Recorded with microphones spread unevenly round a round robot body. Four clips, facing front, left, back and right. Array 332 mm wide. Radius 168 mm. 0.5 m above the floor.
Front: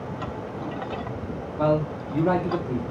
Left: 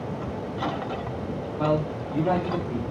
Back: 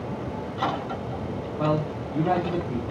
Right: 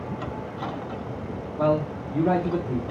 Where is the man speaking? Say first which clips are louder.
Right 2 dB, front 3 dB; 10° right, 1.1 m.